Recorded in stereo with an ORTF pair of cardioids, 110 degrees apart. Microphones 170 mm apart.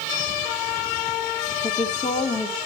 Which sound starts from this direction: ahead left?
A woman speaking, at 1.6 s.